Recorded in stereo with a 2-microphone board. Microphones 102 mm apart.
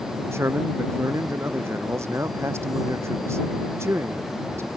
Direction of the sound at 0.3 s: 25° right (ahead or behind).